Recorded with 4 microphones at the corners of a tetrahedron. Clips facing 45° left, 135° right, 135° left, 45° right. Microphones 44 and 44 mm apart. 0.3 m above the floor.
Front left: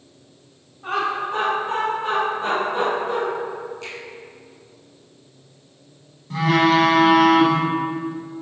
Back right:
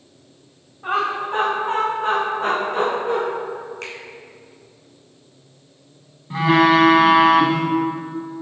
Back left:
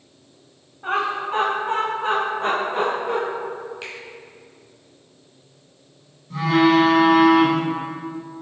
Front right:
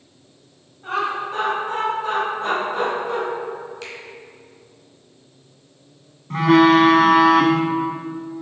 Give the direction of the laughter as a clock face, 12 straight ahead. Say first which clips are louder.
Back right 2 dB, back left 1 dB; 7 o'clock.